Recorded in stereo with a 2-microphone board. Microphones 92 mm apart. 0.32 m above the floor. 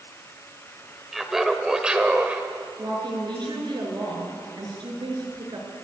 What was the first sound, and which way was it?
Laughter, centre (ahead or behind).